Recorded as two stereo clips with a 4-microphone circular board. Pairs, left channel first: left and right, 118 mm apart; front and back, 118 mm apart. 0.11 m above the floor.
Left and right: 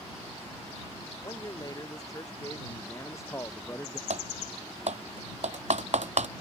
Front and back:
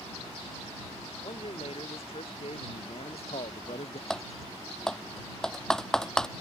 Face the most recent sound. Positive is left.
turn(degrees=-85)